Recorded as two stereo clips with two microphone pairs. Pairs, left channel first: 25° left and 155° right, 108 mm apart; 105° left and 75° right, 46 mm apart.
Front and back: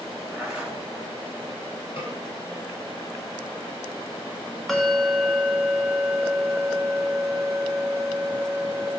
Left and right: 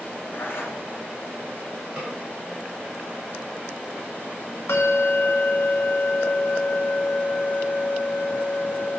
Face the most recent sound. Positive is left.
turn(degrees=110)